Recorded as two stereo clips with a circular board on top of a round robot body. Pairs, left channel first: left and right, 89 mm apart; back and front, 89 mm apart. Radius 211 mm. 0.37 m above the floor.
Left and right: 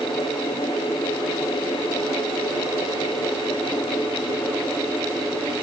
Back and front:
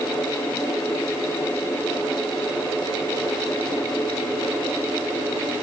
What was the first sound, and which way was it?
Only background noise.